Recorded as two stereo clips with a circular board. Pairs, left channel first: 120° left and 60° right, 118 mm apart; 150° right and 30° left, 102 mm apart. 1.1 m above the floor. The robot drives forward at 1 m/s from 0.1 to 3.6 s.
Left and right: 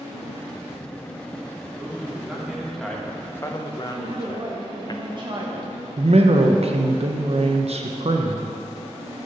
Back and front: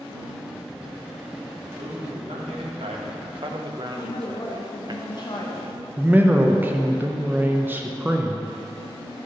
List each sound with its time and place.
1.8 s a man speaking: 15° left, 2 m; by 4.9 s 70° left, 0.7 m
3.9 s a woman speaking: 105° right, 0.9 m
6.0 s a man speaking: 40° right, 0.7 m